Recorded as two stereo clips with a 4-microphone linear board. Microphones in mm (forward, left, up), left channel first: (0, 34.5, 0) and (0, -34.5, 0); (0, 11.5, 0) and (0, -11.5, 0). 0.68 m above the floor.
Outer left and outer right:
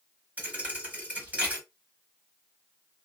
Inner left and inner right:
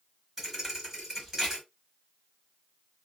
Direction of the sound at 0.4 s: 20° right (ahead or behind).